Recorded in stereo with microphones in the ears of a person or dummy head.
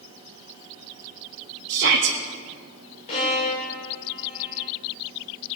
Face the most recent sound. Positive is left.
turn(degrees=40)  # may be behind; listen again after turning